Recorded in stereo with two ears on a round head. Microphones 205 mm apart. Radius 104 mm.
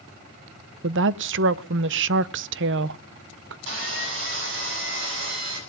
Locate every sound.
0.8 s a woman speaking: 55° right (ahead or behind), 0.6 m
3.7 s sawing: 60° right (ahead or behind), 8.5 m